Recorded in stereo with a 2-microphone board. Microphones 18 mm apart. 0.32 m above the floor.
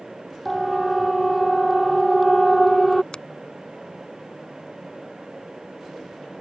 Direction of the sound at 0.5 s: 10° left (ahead or behind).